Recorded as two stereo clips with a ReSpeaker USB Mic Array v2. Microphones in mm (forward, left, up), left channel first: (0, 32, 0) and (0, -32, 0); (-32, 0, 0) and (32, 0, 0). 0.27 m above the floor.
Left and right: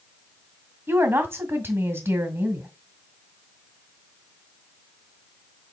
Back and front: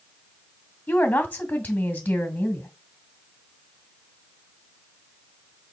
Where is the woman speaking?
120° right, 2 m.